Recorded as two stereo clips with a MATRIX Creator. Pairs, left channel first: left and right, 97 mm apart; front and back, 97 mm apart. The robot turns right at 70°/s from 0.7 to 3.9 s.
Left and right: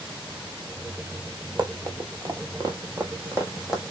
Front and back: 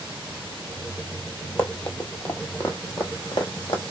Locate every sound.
1.6 s running footsteps: 75° right, 0.8 m; by 3.8 s straight ahead, 1.4 m